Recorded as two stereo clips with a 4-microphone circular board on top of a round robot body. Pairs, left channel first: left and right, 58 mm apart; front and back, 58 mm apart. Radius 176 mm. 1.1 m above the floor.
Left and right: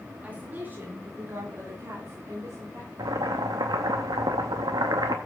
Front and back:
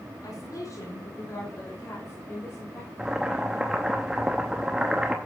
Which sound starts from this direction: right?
Boiling, at 3.0 s.